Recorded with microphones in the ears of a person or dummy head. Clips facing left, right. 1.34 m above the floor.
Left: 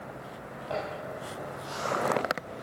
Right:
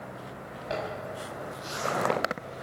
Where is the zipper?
25° right (ahead or behind), 7.5 m.